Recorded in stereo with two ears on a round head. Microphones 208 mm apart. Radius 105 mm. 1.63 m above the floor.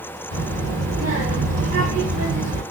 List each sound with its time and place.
0.3 s a child speaking: 60° right (ahead or behind), 1.9 m